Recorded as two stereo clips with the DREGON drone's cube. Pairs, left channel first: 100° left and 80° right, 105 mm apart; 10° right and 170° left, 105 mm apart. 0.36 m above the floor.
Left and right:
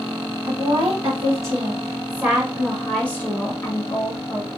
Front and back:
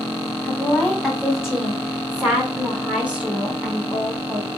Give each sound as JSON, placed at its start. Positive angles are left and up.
{"t": 0.4, "sound": "a woman speaking", "azimuth_deg": -105, "distance_m": 1.6}